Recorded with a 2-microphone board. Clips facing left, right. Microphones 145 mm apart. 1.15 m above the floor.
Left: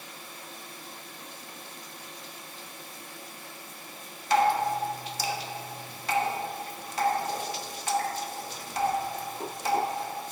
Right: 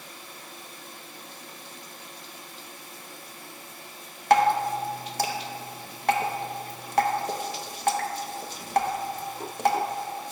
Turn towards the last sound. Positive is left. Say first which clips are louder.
# right 3 dB
turn(degrees=-55)  # may be behind; listen again after turning